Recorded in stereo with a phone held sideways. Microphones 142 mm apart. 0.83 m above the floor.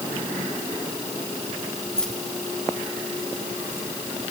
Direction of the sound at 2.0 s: 5° left (ahead or behind).